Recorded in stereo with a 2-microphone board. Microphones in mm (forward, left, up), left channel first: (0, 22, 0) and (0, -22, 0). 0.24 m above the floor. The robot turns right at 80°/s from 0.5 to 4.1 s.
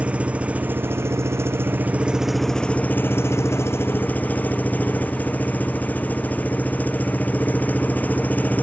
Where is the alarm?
I don't hear an alarm.